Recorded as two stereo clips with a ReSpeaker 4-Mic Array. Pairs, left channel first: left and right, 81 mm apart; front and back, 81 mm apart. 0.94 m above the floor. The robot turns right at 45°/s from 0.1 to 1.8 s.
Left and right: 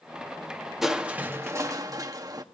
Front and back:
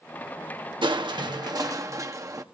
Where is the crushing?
175° right, 1.1 m; by 2.4 s 135° right, 1.1 m.